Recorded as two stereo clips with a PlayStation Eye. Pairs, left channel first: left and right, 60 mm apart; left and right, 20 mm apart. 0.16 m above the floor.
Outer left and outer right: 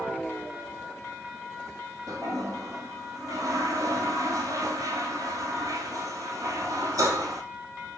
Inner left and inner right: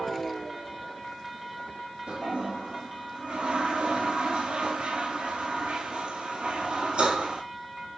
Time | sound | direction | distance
2.1 | a toilet flushing | 65° right (ahead or behind) | 1.2 m